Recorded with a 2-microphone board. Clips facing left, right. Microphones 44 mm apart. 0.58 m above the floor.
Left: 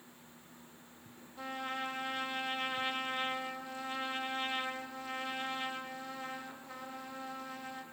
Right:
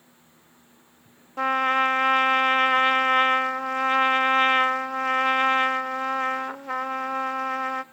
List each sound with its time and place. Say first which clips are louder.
1.4 s a trumpet: right 18 dB; 75° right (ahead or behind), 0.9 m